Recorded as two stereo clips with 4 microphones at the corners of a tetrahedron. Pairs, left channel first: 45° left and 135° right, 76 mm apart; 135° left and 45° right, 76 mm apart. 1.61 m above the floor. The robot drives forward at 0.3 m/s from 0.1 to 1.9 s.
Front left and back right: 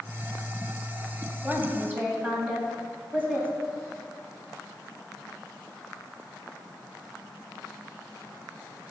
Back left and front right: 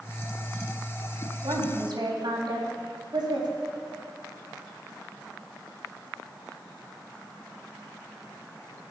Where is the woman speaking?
65° right, 4 m; by 3.5 s 70° right, 4 m.